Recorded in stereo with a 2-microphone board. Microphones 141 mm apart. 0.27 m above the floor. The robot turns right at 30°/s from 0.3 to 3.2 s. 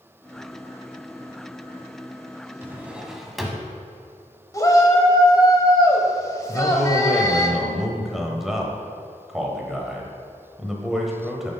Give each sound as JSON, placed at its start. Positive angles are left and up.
{"t": 2.6, "sound": "a drawer", "side_deg": -15, "distance_m": 0.8}
{"t": 4.5, "sound": "a shout", "side_deg": 25, "distance_m": 1.1}
{"t": 6.5, "sound": "a man speaking", "side_deg": 0, "distance_m": 1.0}